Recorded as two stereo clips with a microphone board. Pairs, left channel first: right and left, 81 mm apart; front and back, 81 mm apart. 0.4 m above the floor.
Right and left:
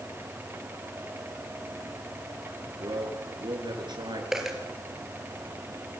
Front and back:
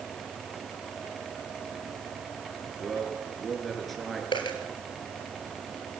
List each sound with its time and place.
2.8 s a man speaking: 90° left, 6 m
4.3 s a dropped coin: 5° left, 3.5 m